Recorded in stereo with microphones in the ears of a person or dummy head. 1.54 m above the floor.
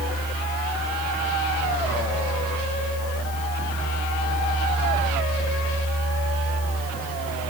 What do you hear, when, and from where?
0.0 s a fan: 40° left (ahead or behind), 3 m